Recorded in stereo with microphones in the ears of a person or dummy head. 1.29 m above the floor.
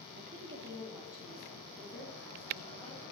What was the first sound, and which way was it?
A woman speaking, 45° right (ahead or behind).